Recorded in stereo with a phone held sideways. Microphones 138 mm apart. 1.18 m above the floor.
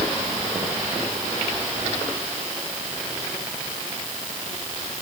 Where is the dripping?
No dripping in this recording.